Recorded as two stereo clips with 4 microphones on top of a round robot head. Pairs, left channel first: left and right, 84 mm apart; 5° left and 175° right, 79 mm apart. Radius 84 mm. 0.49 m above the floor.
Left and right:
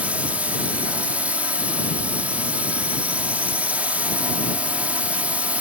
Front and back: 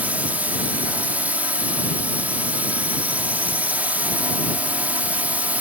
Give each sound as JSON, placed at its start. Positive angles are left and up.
{"t": 0.0, "sound": "a drone", "azimuth_deg": -140}